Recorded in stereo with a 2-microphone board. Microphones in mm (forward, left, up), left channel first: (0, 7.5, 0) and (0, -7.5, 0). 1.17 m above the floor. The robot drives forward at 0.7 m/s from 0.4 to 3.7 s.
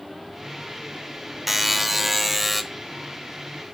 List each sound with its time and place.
1.5 s a buzzer: 10° right (ahead or behind), 0.9 m; by 2.6 s 5° right (ahead or behind), 1.4 m